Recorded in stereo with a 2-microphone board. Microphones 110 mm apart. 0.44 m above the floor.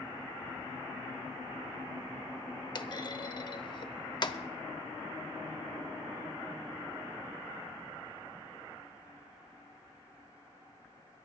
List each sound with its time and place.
2.8 s a clunk: 40° left (ahead or behind), 0.8 m